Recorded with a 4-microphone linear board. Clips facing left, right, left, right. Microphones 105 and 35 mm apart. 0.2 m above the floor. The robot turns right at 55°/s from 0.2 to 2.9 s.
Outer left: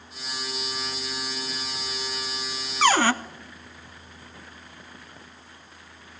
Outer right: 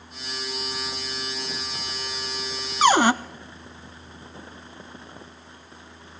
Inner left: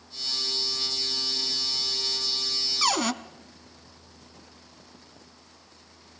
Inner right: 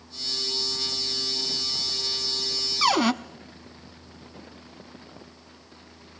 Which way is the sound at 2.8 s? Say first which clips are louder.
Outer right 3 dB, inner right 5 dB; 15° right (ahead or behind).